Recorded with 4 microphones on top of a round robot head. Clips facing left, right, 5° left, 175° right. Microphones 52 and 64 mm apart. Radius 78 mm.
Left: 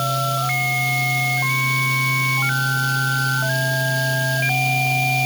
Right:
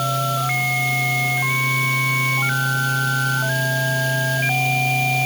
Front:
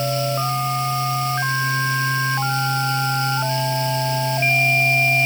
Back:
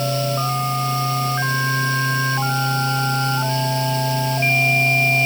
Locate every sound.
Only background noise.